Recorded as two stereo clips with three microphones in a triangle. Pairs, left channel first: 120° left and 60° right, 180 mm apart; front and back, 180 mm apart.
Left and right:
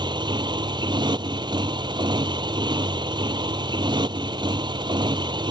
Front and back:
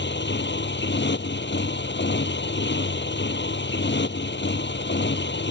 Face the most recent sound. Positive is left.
turn(degrees=5)